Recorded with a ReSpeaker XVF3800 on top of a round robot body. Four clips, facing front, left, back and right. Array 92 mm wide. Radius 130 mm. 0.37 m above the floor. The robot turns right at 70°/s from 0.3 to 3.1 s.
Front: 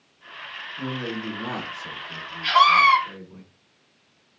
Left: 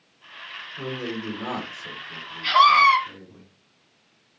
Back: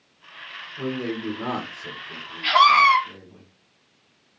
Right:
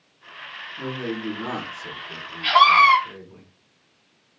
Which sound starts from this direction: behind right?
A scream, at 2.4 s.